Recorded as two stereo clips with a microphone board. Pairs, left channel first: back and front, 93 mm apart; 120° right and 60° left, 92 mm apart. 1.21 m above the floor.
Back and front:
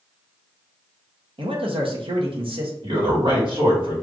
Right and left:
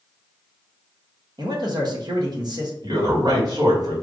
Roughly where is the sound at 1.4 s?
Ahead.